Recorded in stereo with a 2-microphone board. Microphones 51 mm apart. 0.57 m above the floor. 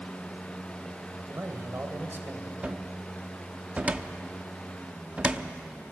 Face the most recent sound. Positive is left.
turn(degrees=-25)  # may be behind; listen again after turning